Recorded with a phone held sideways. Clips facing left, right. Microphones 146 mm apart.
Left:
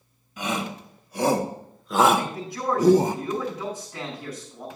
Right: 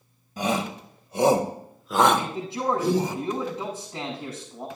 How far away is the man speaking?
About 6.5 m.